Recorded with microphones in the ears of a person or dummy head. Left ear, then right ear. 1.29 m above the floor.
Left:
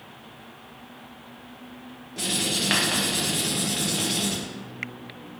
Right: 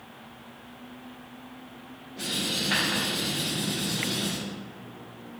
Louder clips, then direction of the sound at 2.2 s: Left 3 dB; 55° left (ahead or behind).